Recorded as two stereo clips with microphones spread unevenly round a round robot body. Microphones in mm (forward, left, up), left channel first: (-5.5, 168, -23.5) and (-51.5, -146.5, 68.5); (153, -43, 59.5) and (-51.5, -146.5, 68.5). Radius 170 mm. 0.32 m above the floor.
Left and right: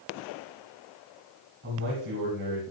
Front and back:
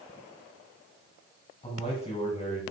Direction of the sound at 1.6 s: 35° right.